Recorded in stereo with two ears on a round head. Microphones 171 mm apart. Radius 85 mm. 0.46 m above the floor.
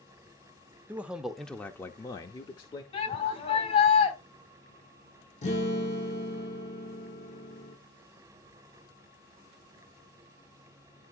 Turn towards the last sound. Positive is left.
turn(degrees=35)  # may be behind; listen again after turning